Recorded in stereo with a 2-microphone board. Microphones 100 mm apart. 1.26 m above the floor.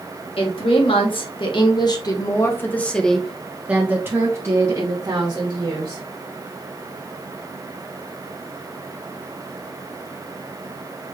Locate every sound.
0.4 s a woman speaking: 70° left (ahead or behind), 1.7 m; by 6.0 s 45° right (ahead or behind), 2 m